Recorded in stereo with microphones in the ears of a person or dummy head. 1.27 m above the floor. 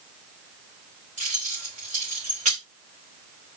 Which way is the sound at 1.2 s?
35° right (ahead or behind).